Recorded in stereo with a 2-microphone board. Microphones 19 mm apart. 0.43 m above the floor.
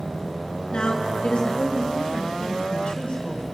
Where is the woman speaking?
60° left (ahead or behind), 2.5 m; by 3.4 s 55° left (ahead or behind), 3 m.